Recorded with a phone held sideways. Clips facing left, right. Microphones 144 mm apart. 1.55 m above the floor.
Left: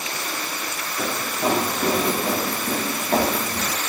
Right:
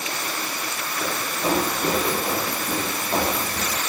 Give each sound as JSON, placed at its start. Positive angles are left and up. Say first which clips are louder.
{"t": 1.0, "sound": "running footsteps", "louder": "left 2 dB", "side_deg": 80, "distance_m": 9.0}